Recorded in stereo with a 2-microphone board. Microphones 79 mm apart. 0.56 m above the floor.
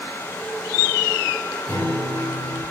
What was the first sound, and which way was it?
A guitar, 35° left (ahead or behind).